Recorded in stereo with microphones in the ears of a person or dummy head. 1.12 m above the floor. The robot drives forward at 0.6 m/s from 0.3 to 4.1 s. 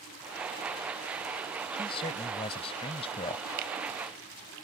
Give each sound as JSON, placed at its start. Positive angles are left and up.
{"t": 1.7, "sound": "a man speaking", "side_deg": 30}
{"t": 3.6, "sound": "a finger snap", "side_deg": -55}